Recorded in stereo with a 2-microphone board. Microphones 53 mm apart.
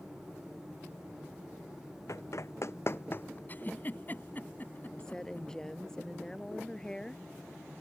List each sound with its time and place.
2.1 s running footsteps: 65° left (ahead or behind); by 3.4 s 35° left (ahead or behind)
3.5 s a giggle: 35° left (ahead or behind)
5.0 s a woman speaking: 10° left (ahead or behind)